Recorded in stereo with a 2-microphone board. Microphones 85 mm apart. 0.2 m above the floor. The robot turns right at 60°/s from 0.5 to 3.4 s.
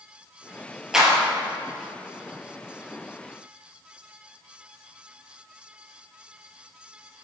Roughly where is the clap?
Centre.